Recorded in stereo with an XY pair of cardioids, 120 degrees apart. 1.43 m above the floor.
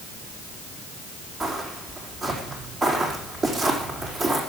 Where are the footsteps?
40° right, 5 m.